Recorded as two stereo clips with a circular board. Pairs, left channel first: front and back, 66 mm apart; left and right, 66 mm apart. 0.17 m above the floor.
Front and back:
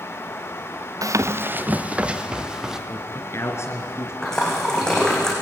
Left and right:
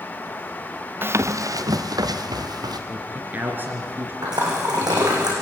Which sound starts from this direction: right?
A splash, at 4.2 s.